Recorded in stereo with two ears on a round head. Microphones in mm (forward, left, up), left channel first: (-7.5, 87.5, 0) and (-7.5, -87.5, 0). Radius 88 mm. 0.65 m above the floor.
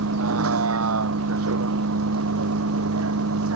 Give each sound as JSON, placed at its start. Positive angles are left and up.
{"t": 0.0, "sound": "a vehicle", "side_deg": -85}